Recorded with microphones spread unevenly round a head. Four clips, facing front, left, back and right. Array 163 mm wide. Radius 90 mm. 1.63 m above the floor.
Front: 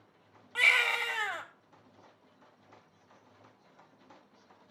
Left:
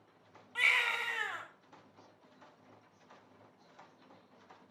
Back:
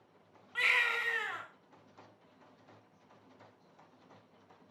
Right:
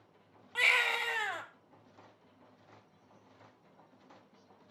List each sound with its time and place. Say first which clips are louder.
0.6 s a baby crying: right 2 dB, front 4 dB; 55° right, 1.6 m